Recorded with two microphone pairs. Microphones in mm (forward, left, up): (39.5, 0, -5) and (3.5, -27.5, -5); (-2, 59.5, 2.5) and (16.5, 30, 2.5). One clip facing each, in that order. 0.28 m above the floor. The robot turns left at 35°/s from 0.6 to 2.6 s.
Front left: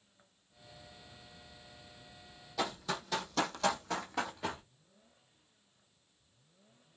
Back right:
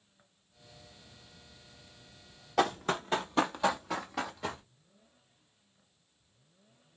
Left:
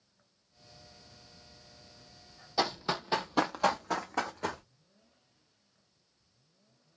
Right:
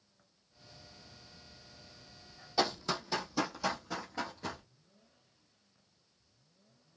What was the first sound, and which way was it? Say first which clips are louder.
Running footsteps: back right 7 dB, left 1 dB; 160° right.